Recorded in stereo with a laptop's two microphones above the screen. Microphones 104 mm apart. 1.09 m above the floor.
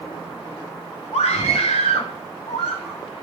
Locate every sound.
1.1 s a scream: 85° left, 2.5 m; by 3.0 s 70° left (ahead or behind), 3.5 m